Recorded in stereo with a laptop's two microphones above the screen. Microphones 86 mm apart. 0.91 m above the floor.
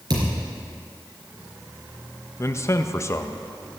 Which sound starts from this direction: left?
A man speaking, at 2.4 s.